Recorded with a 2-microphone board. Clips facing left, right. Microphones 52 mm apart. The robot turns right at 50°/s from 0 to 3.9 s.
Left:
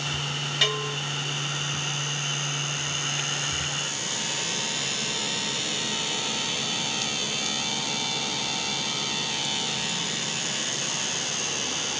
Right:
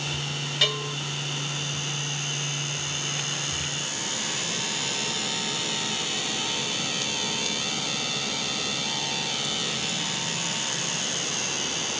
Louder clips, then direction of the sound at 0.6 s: Left 1 dB; 5° left (ahead or behind).